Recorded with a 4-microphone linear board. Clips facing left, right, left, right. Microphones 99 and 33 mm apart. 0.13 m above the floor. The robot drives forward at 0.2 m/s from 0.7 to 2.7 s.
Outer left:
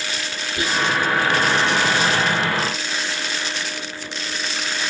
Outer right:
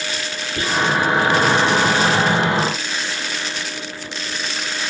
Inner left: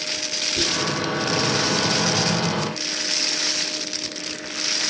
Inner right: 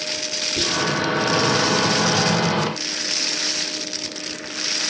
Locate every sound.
0.6 s whispering: 45° right (ahead or behind), 1.4 m